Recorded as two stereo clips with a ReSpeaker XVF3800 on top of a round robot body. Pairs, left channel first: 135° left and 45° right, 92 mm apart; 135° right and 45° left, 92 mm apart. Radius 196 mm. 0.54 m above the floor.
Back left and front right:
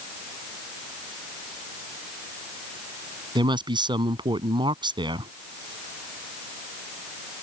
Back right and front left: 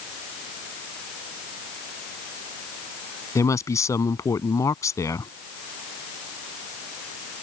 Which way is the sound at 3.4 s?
80° right.